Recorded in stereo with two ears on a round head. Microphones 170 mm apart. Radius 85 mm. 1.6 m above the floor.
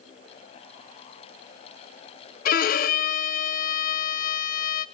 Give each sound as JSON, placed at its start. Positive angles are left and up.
{"t": 2.5, "sound": "a violin", "side_deg": 45, "distance_m": 0.7}